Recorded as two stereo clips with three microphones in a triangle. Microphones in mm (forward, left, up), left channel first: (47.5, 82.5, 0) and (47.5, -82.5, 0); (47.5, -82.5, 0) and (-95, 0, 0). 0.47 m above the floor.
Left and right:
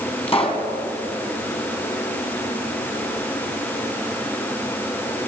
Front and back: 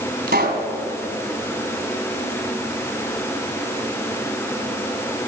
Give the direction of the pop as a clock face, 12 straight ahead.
7 o'clock.